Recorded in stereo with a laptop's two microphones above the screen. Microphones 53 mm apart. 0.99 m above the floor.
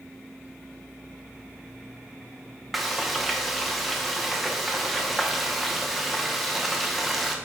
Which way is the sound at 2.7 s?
Centre (ahead or behind).